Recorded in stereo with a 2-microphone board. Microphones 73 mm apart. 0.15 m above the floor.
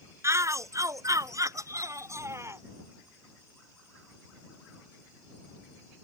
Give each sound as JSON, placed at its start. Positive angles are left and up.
{"t": 0.2, "sound": "a shout", "side_deg": -40}